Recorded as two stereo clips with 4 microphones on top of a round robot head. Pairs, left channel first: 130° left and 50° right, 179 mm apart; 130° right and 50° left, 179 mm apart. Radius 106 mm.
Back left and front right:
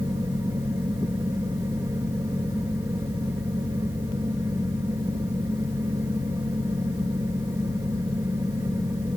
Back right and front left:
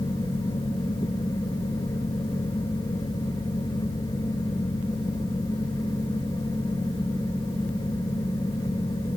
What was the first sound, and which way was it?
Only background noise.